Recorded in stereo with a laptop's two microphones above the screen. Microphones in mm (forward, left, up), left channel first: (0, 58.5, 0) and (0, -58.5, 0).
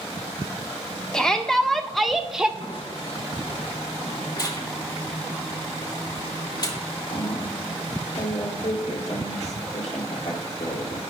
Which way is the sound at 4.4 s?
35° left (ahead or behind).